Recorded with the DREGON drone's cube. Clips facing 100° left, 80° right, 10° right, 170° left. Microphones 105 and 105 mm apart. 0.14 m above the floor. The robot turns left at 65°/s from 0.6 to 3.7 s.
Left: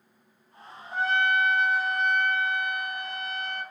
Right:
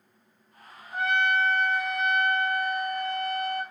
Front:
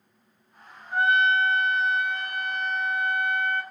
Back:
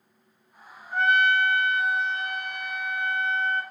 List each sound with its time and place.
0.9 s a trumpet: 75° left, 1.2 m; by 3.6 s 100° right, 1.2 m